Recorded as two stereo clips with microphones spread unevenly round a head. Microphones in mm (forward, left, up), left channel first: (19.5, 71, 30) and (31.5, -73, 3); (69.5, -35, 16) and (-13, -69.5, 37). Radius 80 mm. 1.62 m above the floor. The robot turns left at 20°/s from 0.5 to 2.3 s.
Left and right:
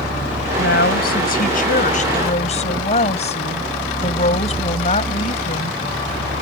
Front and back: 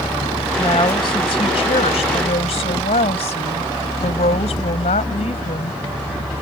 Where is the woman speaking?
85° left; by 5.8 s 50° left.